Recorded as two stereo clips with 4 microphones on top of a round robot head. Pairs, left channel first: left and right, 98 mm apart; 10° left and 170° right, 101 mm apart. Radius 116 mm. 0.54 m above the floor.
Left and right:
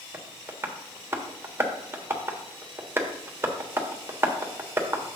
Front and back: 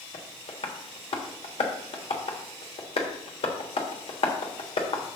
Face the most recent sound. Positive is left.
turn(degrees=-25)